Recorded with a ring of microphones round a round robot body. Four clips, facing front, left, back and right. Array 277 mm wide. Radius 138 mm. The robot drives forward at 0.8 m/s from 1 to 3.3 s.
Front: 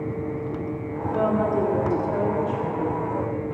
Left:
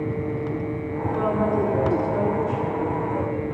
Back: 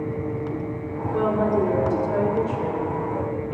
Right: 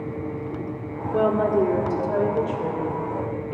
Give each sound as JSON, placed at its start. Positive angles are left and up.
{"t": 1.1, "sound": "a woman speaking", "azimuth_deg": -90, "distance_m": 1.8}